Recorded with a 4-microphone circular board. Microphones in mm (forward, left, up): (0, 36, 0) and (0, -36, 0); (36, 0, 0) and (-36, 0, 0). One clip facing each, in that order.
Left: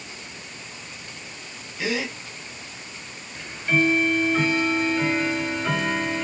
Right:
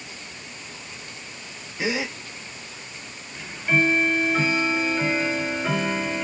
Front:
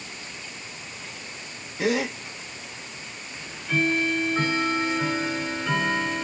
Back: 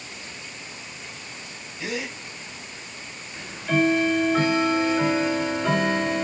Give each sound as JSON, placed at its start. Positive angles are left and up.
{"t": 1.8, "sound": "a gasp", "azimuth_deg": -25, "distance_m": 1.3}
{"t": 3.4, "sound": "ticking", "azimuth_deg": -170, "distance_m": 1.9}